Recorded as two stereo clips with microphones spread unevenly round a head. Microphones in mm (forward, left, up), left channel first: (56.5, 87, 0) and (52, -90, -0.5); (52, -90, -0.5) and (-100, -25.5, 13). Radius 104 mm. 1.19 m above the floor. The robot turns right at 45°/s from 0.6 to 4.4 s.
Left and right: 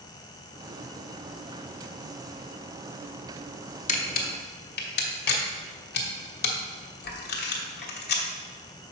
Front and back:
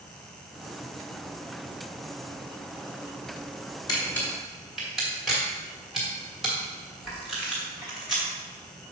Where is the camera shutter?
45° left, 1.2 m; by 8.2 s 65° left, 1.2 m.